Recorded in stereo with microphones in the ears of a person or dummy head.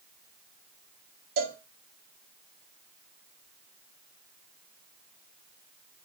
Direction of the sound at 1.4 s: 50° right (ahead or behind).